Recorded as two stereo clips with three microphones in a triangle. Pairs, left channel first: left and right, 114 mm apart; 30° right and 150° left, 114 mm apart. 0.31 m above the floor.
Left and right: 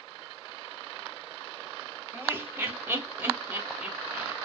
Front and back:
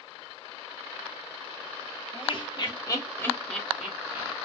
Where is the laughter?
25° right, 1.3 m; by 4.3 s 165° right, 1.0 m.